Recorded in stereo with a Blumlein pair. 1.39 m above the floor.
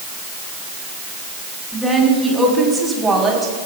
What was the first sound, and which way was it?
A woman speaking, straight ahead.